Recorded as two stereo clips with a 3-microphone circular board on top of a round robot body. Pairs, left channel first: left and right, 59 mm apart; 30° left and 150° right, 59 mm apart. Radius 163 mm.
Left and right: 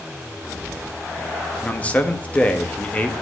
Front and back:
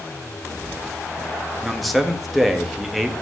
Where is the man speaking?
125° left, 1.3 m.